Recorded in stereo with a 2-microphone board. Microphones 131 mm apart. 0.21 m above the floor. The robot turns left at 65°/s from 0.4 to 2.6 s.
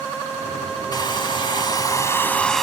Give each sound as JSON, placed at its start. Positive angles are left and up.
{"t": 0.9, "sound": "a hair dryer", "azimuth_deg": 115}